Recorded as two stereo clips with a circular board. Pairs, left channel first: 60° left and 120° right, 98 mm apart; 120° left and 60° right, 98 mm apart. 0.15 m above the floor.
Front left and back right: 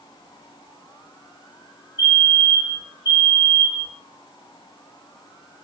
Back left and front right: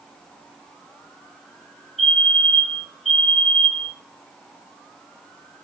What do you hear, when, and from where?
2.0 s a fire alarm: 30° left, 4 m